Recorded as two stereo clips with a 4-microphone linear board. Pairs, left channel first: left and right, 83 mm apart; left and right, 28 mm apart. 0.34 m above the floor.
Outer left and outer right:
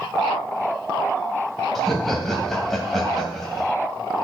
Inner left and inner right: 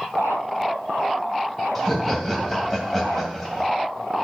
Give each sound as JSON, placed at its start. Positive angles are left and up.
{"t": 1.8, "sound": "laughter", "side_deg": 5, "distance_m": 1.9}